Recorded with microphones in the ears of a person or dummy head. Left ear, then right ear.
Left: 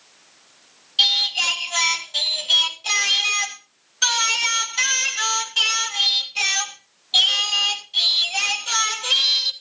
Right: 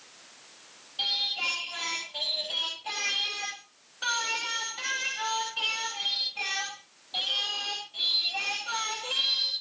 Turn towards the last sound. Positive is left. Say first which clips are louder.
# left 10 dB
turn(degrees=65)  # may be behind; listen again after turning